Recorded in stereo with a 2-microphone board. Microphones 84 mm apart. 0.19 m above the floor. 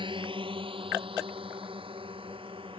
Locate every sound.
0.0 s a drone: 70° right (ahead or behind); by 2.8 s 80° right